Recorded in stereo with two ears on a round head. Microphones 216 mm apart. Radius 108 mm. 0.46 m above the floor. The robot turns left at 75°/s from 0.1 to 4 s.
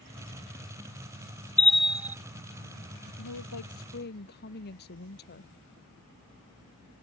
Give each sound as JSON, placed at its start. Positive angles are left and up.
{"t": 1.6, "sound": "a bell", "side_deg": 5}
{"t": 3.2, "sound": "a woman speaking", "azimuth_deg": 105}